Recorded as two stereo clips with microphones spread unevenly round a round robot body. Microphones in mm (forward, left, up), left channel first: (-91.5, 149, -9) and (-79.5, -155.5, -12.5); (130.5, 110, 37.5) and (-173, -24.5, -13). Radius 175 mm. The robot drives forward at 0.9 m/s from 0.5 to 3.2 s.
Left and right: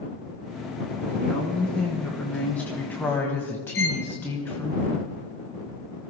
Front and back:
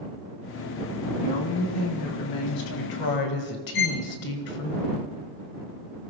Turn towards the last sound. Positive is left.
turn(degrees=35)